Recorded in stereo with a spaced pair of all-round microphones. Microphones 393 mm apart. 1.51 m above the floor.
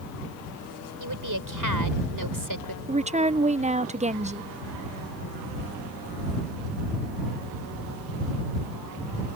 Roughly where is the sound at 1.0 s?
Right.